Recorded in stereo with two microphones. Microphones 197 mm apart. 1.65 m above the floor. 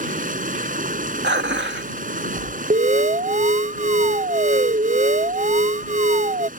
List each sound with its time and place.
0.0 s running water: 45° right (ahead or behind)
1.2 s dishes clattering: 65° right (ahead or behind)
2.7 s an alarm: 40° right (ahead or behind)